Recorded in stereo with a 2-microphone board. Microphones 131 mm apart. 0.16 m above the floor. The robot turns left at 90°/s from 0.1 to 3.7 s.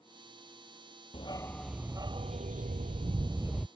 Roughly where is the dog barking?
Ahead left.